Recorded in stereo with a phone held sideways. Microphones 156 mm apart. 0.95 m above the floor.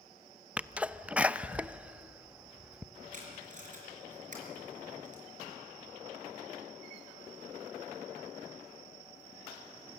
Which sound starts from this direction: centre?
A sneeze, at 0.6 s.